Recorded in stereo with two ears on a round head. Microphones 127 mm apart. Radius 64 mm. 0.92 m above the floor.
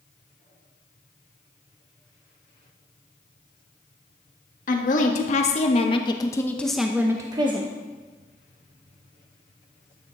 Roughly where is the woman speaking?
Left.